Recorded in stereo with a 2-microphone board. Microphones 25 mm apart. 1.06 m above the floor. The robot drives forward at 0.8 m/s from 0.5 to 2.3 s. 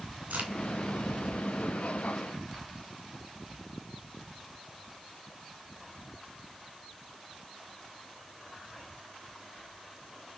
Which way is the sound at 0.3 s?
90° right.